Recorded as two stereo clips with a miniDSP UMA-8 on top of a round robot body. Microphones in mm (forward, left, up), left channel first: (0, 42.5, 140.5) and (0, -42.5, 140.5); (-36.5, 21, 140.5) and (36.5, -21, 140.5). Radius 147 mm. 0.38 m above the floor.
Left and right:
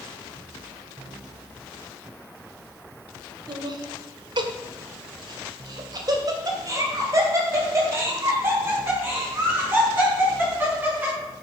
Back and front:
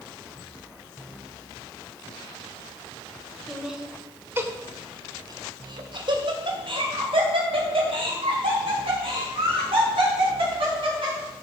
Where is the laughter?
120° right, 2.0 m; by 11.2 s 20° right, 6.5 m.